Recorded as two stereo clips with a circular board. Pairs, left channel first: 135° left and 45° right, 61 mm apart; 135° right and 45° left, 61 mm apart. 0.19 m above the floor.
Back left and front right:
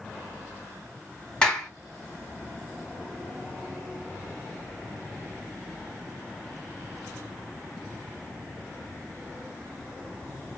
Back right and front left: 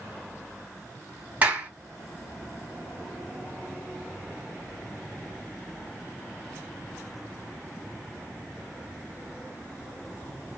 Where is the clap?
70° left, 1.3 m.